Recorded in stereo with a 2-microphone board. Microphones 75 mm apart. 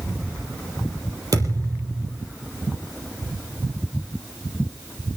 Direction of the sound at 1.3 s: 55° right (ahead or behind).